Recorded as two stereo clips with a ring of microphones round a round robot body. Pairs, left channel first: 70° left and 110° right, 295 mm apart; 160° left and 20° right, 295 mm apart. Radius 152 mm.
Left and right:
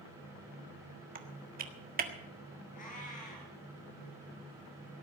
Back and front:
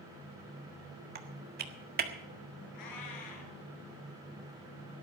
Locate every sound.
1.1 s typing on a keyboard: 65° right, 1.6 m
2.7 s a cat meowing: 135° left, 5 m